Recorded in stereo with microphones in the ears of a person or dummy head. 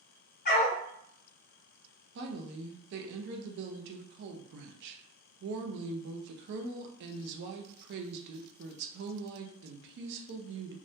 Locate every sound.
0.5 s a dog barking: 55° left (ahead or behind), 1.3 m
2.1 s a woman speaking: 65° right (ahead or behind), 0.6 m